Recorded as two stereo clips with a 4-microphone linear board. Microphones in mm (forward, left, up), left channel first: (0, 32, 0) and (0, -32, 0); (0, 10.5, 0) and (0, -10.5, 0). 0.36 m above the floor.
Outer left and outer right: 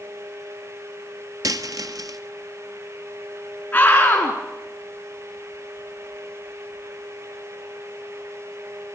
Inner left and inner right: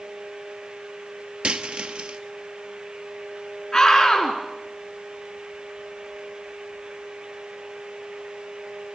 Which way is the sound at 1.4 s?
70° right (ahead or behind).